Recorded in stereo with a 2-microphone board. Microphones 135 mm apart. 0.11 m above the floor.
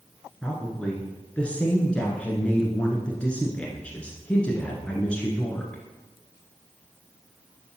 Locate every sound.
0.4 s a woman speaking: 10° left (ahead or behind), 1.3 m